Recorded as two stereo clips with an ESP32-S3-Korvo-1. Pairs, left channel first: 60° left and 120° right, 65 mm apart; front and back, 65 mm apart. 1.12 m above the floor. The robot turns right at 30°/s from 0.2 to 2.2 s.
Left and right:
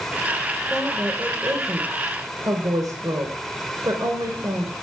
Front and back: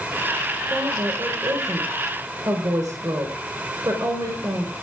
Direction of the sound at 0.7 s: 165° left.